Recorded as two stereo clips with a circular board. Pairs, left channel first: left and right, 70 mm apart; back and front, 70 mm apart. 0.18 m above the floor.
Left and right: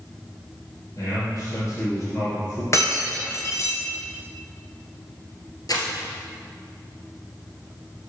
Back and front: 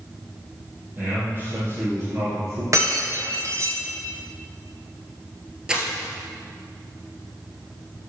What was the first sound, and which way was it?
A man speaking, 60° left.